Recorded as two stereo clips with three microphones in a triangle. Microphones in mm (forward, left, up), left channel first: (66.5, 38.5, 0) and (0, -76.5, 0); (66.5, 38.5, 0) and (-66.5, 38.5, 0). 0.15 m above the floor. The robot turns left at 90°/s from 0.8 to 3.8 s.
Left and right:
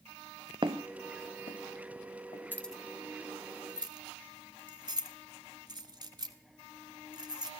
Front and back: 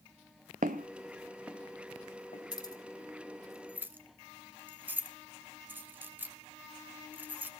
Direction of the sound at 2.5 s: 5° right.